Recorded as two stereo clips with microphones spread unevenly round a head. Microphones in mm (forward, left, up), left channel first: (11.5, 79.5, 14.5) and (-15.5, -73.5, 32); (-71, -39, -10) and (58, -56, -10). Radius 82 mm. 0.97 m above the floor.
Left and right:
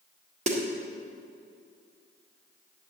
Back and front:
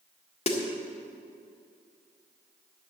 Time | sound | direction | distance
0.5 | a snare drum | 150° right | 1.7 m